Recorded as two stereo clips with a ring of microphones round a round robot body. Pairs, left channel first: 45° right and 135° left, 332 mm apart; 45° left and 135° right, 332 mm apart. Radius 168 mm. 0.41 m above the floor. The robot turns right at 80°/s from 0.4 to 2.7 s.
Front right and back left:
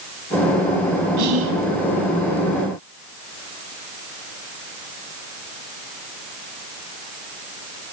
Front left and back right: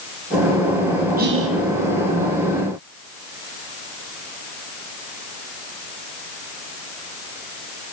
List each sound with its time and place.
1.2 s whispering: 160° left, 3 m; by 1.5 s 170° right, 3 m